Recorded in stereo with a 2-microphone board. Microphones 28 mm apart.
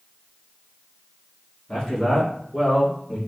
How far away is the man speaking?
About 1.3 m.